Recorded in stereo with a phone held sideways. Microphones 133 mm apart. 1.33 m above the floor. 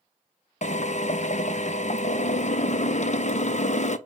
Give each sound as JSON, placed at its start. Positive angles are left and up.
{"t": 0.6, "sound": "a drill", "side_deg": 55, "distance_m": 0.7}